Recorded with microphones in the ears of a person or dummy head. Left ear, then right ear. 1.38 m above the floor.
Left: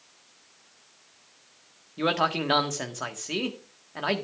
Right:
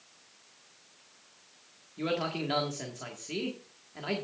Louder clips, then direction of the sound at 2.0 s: Left 7 dB; 40° left (ahead or behind).